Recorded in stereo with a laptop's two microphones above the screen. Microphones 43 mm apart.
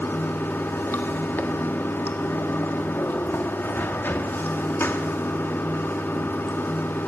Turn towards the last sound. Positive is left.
turn(degrees=50)  # may be behind; listen again after turning